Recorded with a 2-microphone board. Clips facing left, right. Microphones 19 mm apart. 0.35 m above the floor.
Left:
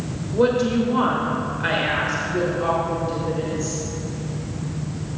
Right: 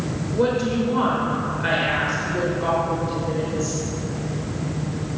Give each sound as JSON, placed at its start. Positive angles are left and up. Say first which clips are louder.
{"t": 0.3, "sound": "a woman speaking", "louder": "left 3 dB", "side_deg": 10, "distance_m": 1.5}